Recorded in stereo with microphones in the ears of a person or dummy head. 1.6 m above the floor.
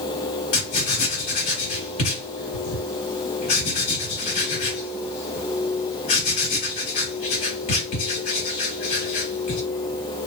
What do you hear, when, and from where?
0.5 s writing: 50° left (ahead or behind), 1.4 m